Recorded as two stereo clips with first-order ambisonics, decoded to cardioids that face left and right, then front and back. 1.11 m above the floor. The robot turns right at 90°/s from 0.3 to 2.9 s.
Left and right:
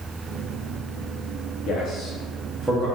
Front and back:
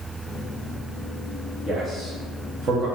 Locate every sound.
1.7 s a man speaking: 90° left, 0.6 m; by 2.9 s 165° right, 0.6 m